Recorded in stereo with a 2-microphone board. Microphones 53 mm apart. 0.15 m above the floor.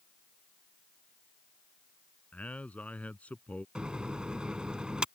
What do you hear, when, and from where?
2.3 s a man speaking: 30° left (ahead or behind)
3.8 s a microwave: 15° right (ahead or behind)